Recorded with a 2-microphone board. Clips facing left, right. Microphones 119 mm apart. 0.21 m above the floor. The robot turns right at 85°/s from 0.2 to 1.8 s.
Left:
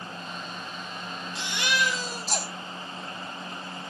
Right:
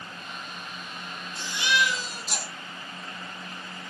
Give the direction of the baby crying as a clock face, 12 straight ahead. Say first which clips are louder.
Right 2 dB; 9 o'clock.